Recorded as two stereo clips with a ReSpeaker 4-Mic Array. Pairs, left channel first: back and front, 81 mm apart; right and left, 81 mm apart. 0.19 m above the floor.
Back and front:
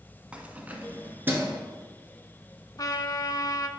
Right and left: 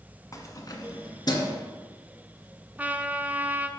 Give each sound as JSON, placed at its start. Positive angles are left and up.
{"t": 0.3, "sound": "keys jangling", "azimuth_deg": -70, "distance_m": 1.2}
{"t": 2.8, "sound": "a trumpet", "azimuth_deg": 155, "distance_m": 0.7}